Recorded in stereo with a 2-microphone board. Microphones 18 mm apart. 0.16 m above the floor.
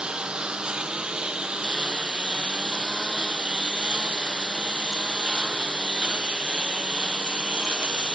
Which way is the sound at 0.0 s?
55° right (ahead or behind).